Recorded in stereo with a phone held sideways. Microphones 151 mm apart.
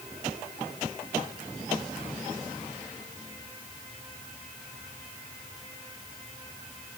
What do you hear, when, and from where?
Only background noise.